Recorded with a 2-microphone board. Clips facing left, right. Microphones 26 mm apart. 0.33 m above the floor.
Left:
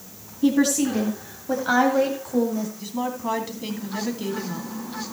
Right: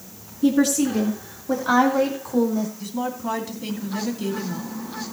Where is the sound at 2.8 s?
15° left (ahead or behind), 2.5 m.